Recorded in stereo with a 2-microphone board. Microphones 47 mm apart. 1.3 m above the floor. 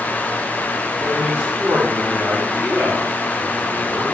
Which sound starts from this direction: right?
A man speaking, at 1.0 s.